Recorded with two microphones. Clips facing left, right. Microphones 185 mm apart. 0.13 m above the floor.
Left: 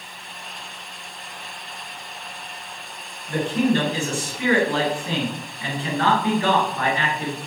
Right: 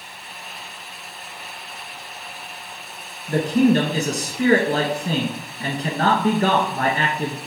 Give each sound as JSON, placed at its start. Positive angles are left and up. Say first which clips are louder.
{"t": 3.3, "sound": "a man speaking", "louder": "right 4 dB", "side_deg": -40, "distance_m": 1.4}